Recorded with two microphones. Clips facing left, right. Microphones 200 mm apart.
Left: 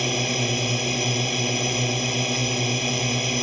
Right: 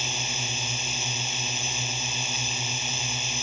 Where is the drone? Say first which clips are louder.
Left 12 dB; 65° left (ahead or behind).